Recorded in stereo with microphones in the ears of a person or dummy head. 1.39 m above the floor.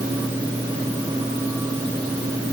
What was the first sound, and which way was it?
Only background noise.